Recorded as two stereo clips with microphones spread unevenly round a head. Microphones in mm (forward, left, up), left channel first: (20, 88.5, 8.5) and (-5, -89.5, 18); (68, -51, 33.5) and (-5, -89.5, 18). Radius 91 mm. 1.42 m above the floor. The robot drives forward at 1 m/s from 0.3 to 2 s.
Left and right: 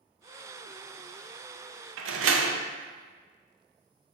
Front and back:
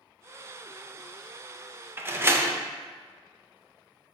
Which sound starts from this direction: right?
A door slam, at 2.0 s.